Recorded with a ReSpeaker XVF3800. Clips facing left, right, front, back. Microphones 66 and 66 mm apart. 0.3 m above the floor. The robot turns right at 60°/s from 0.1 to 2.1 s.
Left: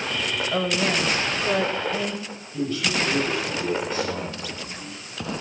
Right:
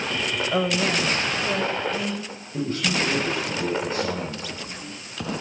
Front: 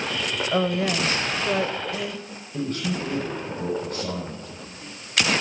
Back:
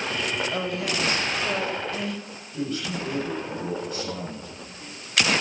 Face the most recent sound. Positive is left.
turn(degrees=-45)